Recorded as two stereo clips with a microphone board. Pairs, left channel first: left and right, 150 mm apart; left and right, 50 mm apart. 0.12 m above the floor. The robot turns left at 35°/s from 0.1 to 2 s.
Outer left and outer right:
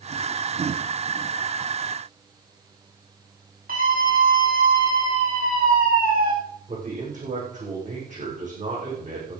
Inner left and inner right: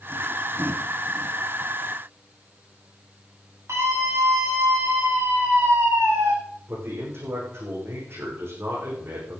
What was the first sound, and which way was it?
A scream, 70° right (ahead or behind).